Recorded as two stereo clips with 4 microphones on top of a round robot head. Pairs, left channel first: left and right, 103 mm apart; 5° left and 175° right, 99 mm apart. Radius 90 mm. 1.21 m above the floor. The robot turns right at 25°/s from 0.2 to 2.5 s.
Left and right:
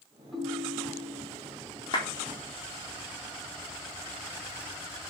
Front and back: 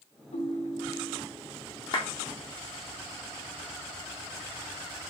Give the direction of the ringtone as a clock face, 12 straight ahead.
12 o'clock.